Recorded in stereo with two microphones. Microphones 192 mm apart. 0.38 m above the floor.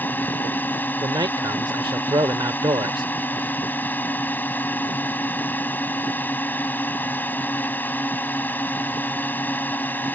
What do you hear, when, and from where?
0.0 s a drone: 10° left (ahead or behind)
1.0 s a man speaking: 25° right (ahead or behind)